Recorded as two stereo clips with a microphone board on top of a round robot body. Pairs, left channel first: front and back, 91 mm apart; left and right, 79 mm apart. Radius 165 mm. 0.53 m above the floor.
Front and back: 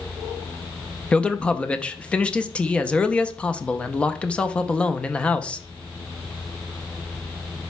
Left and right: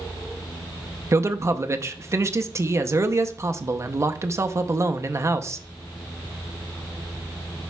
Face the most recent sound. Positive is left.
turn(degrees=-70)